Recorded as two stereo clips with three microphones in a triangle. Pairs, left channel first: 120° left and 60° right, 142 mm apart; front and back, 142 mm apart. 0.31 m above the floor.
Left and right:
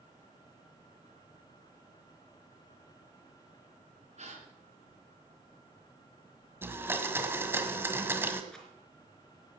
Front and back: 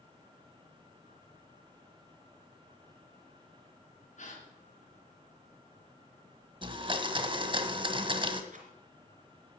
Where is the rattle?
155° right, 3 m.